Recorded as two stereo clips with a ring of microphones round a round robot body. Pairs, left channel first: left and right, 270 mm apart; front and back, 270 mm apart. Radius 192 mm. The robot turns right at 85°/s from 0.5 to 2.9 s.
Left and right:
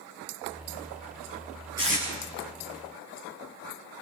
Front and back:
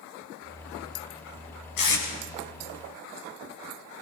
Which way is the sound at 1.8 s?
10° right.